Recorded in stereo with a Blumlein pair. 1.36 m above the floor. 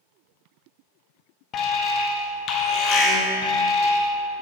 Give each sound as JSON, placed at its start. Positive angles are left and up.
{"t": 1.5, "sound": "an alarm", "azimuth_deg": 30, "distance_m": 1.4}